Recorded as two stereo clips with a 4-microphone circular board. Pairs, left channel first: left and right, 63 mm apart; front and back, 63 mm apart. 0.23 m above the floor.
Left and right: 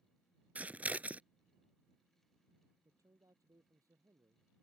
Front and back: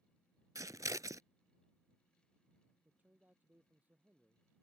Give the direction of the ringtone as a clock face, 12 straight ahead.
No ringtone in this recording.